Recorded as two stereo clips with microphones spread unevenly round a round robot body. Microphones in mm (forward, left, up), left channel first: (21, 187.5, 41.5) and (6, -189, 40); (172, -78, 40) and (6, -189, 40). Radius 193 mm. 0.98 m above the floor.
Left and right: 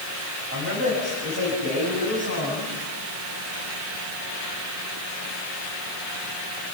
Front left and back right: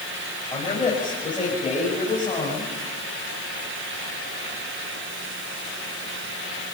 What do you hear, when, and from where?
0.5 s a man speaking: 30° right, 7 m